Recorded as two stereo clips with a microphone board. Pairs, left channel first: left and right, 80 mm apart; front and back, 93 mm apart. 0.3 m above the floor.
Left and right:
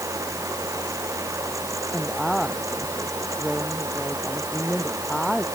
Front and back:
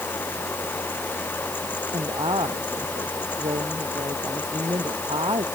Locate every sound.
1.9 s a woman speaking: straight behind